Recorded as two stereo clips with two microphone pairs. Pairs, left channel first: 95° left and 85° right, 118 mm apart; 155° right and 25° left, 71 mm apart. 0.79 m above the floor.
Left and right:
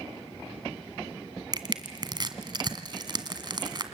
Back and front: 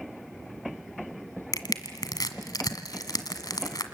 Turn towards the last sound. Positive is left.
turn(degrees=-135)